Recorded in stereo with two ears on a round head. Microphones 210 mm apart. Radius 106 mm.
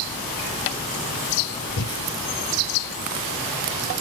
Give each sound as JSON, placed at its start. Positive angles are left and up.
{"t": 1.8, "sound": "breathing", "side_deg": 65, "distance_m": 1.8}